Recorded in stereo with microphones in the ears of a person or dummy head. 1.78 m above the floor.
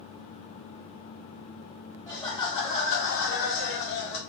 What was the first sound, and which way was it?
Laughter, 15° left (ahead or behind).